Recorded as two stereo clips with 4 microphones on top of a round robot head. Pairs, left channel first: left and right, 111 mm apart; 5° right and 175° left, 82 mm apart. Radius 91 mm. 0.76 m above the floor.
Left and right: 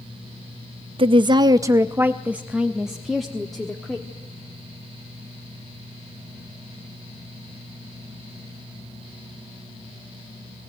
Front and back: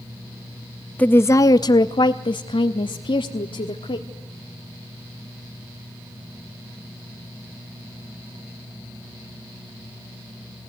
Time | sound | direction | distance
1.0 | a woman speaking | 75° right | 0.5 m